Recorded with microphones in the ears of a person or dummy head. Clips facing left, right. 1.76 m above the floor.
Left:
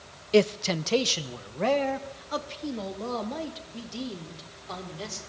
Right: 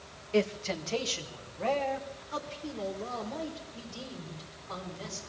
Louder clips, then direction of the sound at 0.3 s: Left 7 dB; 60° left (ahead or behind).